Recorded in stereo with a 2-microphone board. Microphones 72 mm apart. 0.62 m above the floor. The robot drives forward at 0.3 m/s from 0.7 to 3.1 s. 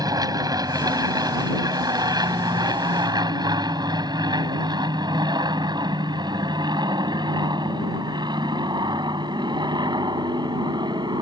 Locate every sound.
0.0 s an aircraft: 55° right (ahead or behind); by 11.2 s 75° right (ahead or behind)